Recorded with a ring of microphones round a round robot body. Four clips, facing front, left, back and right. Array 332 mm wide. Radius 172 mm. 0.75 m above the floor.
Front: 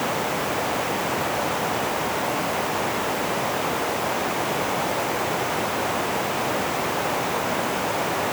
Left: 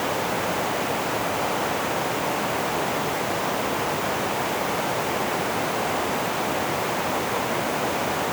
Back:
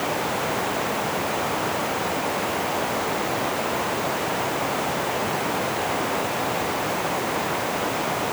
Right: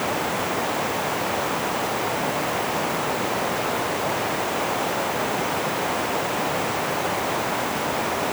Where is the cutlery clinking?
No cutlery clinking in this recording.